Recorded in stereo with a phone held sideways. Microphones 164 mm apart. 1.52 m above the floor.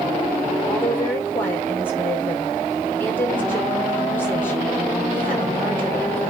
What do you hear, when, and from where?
0.7 s a woman speaking: 15° left (ahead or behind), 4.5 m